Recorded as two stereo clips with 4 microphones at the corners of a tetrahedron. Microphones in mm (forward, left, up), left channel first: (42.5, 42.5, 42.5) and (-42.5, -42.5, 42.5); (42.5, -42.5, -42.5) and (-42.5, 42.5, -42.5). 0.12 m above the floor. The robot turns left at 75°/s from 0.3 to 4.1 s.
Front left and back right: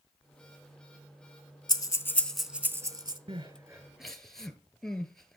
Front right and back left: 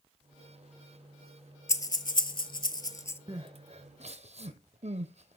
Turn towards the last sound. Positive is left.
turn(degrees=130)